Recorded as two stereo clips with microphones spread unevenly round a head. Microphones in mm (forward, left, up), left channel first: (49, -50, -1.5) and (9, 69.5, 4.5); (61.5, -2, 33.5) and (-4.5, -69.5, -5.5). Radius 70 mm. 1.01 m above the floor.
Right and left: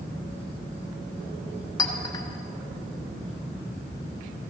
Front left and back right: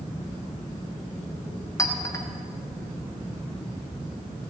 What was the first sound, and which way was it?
A clink, 15° right.